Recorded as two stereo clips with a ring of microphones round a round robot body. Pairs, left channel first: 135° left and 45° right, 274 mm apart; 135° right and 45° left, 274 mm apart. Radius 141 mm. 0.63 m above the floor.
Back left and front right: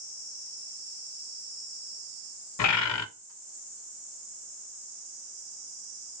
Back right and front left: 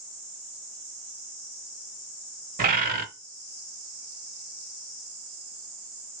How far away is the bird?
About 0.7 m.